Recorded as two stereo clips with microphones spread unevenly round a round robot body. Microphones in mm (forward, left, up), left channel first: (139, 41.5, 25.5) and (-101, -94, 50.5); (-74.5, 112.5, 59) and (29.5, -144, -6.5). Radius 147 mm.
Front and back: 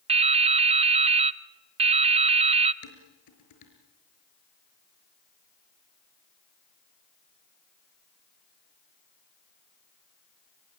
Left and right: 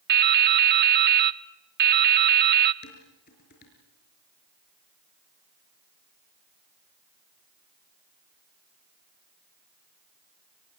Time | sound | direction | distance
0.1 | dripping | 80° right | 0.6 m
2.8 | dishes clattering | 50° left | 5 m